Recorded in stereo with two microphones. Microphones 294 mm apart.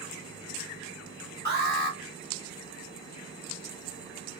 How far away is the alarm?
About 1.5 m.